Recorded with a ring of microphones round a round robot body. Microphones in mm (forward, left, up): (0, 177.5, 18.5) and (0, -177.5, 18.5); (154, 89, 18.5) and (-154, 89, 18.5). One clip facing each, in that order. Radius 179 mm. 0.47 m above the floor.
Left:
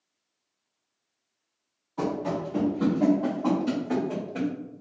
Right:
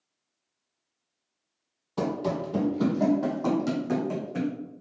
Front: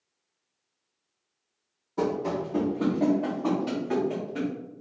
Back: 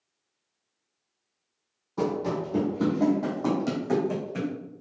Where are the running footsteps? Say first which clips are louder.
Even, even; 95° right, 1.1 m; by 4.5 s 150° right, 2 m.